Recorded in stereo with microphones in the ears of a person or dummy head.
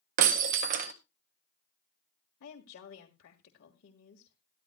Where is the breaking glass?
35° right (ahead or behind), 0.6 m.